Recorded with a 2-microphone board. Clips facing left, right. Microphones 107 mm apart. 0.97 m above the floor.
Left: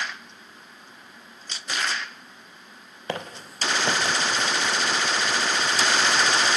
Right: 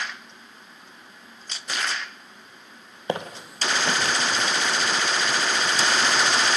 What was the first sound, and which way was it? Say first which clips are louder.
Footsteps: right 4 dB; 20° right (ahead or behind).